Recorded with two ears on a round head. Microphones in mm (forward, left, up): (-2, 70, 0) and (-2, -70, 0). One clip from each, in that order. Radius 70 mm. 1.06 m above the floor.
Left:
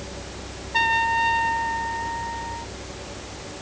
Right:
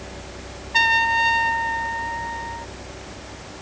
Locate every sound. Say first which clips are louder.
0.7 s a trumpet: right 3 dB; 45° right (ahead or behind)